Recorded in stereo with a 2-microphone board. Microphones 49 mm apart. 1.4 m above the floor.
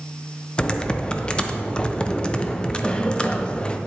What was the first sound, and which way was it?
Typing on a keyboard, 20° left (ahead or behind).